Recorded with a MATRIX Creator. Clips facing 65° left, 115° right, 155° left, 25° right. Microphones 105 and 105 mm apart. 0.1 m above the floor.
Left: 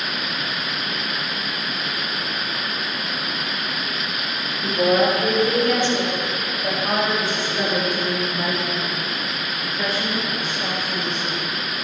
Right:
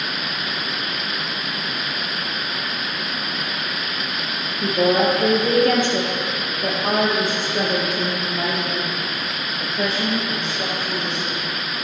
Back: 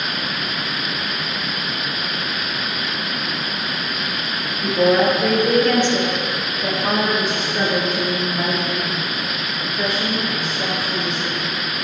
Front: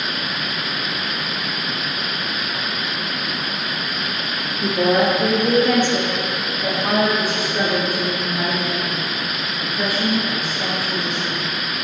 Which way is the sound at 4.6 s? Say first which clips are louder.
Even, back 1 dB; 80° right.